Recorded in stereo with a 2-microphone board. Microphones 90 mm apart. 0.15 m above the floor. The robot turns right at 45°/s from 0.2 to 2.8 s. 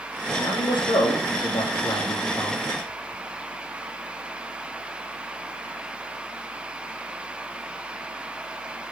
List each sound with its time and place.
0.4 s a man speaking: 50° left, 3 m; by 2.6 s 150° left, 3 m